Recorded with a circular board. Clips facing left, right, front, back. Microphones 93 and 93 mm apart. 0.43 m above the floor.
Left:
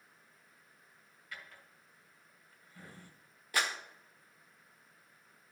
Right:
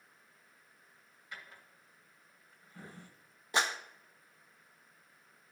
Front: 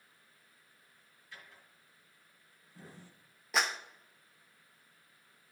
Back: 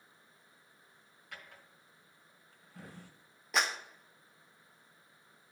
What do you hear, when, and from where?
1.3 s a drawer: 160° right, 1.6 m
3.5 s a clap: 85° right, 0.6 m